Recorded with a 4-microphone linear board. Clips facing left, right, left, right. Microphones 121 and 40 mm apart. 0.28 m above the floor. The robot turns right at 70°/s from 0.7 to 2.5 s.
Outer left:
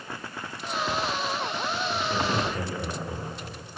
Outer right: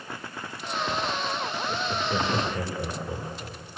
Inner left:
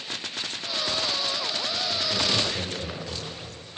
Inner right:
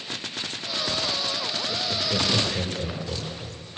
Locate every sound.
1.7 s laughter: 55° right (ahead or behind), 4.5 m; by 3.6 s centre (ahead or behind), 4.5 m